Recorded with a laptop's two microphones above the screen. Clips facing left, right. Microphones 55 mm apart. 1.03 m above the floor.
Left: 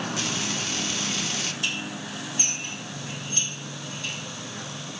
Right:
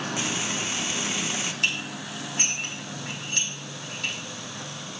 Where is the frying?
20° right (ahead or behind), 1.0 m.